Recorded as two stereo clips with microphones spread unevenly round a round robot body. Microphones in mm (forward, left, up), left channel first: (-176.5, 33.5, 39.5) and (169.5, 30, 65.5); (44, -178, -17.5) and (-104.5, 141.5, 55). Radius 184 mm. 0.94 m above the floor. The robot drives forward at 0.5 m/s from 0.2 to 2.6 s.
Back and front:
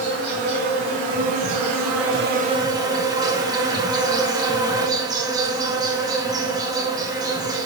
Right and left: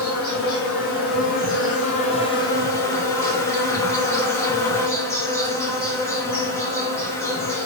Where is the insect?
10° right, 1.4 m; by 7.7 s 75° right, 0.6 m.